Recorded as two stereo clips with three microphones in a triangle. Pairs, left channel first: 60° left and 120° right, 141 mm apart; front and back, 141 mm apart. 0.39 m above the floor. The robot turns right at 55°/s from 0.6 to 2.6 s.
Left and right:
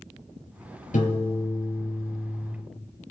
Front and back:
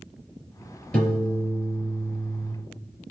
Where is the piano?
80° left, 4 m; by 2.5 s 170° left, 4 m.